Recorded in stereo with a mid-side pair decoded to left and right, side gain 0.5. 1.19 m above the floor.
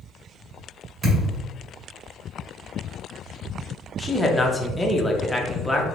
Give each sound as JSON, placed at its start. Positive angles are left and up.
{"t": 1.0, "sound": "a thud", "azimuth_deg": -40, "distance_m": 1.7}
{"t": 4.0, "sound": "a man speaking", "azimuth_deg": 10, "distance_m": 0.7}